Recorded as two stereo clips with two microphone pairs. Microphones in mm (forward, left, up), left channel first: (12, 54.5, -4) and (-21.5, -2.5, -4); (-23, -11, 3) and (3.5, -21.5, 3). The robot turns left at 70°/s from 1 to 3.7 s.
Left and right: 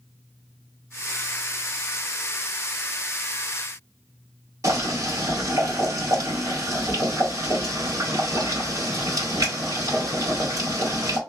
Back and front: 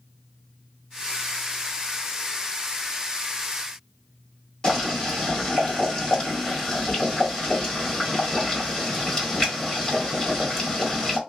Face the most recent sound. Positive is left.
turn(degrees=-145)